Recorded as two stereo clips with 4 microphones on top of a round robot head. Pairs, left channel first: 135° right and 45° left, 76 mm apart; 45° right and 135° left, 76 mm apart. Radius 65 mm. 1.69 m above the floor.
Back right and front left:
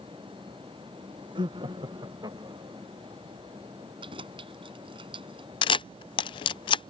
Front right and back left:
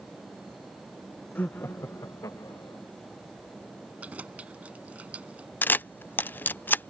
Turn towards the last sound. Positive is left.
turn(degrees=-115)